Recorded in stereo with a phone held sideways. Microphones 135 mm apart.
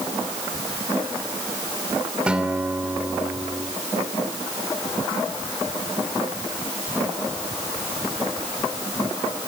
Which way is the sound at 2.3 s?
10° right (ahead or behind).